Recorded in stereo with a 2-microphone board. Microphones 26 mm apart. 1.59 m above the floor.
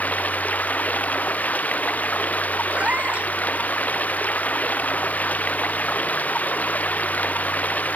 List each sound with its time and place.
0.0 s running water: 85° left
2.7 s a cat meowing: 70° right (ahead or behind)